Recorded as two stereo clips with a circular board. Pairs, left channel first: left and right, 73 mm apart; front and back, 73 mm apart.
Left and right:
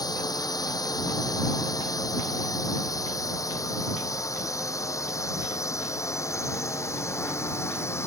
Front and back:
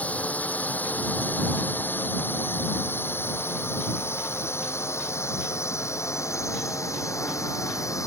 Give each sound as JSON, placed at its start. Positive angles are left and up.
{"t": 0.0, "sound": "a drone", "azimuth_deg": 70}